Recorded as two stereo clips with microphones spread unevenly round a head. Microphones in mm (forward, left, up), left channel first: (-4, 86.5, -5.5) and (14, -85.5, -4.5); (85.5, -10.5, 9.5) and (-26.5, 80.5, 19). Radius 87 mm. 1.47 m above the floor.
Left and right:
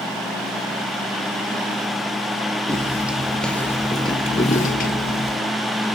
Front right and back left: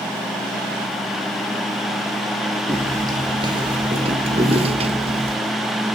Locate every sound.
2.7 s footsteps: 155° right, 2 m; by 5.4 s 100° left, 2.5 m